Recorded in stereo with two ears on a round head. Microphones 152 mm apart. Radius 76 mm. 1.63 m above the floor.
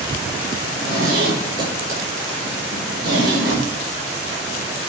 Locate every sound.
0.6 s a zipper: 60° right (ahead or behind), 5.5 m